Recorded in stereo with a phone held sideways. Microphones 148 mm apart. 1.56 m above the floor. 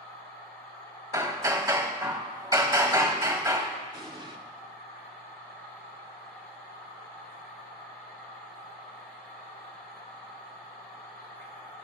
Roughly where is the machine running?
Left.